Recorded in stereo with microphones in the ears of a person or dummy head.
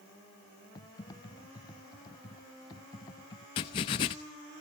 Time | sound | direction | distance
0.8 | typing on a keyboard | 20° left (ahead or behind) | 0.9 m
3.6 | writing | 25° left (ahead or behind) | 1.0 m